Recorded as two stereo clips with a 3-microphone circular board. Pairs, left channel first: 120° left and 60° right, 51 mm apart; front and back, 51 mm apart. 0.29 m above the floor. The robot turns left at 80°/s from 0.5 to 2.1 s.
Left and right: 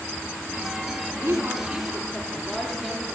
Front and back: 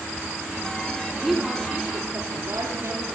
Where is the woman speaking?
75° right, 8 m; by 3.0 s 150° right, 8 m.